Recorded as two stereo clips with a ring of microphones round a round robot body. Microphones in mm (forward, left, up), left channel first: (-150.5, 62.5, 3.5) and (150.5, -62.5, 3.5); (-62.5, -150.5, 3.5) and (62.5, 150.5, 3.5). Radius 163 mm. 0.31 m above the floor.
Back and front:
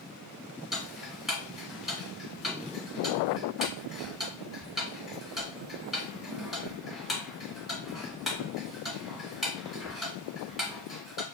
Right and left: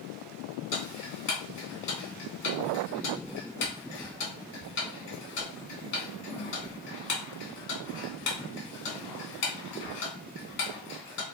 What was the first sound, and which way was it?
Ticking, 110° right.